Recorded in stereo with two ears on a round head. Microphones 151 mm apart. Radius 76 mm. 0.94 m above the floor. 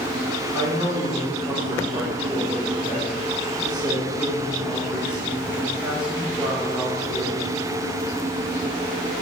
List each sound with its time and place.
0.5 s a woman speaking: 10° right (ahead or behind), 1.3 m